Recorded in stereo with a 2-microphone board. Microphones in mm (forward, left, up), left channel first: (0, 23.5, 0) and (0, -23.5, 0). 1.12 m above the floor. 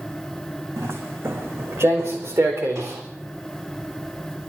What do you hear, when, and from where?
0.8 s footsteps: 70° right (ahead or behind), 4.5 m; by 3.0 s 75° right (ahead or behind), 4.5 m